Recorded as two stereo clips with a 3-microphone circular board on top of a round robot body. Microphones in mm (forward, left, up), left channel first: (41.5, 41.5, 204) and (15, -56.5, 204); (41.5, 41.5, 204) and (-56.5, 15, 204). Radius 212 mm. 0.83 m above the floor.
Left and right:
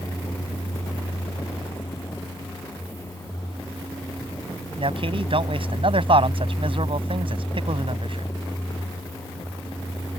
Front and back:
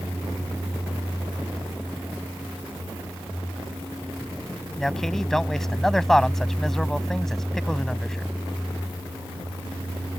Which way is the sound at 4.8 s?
70° right.